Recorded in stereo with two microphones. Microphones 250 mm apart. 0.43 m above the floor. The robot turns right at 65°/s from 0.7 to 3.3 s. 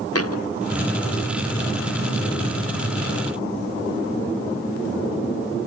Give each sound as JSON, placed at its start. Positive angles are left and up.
{"t": 0.1, "sound": "a thud", "side_deg": 70}